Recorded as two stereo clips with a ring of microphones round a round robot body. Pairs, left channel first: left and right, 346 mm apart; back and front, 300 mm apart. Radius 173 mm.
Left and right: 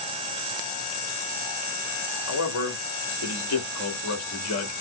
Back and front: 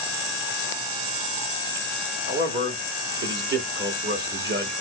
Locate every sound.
2.3 s a man speaking: 50° left, 1.5 m